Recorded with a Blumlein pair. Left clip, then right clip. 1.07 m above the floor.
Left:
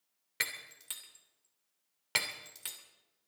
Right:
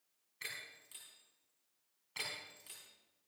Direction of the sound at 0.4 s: 45° left.